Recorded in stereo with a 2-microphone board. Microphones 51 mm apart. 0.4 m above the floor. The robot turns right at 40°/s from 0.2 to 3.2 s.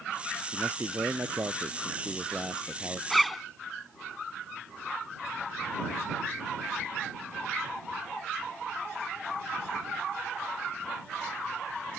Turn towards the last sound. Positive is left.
turn(degrees=0)  # may be behind; listen again after turning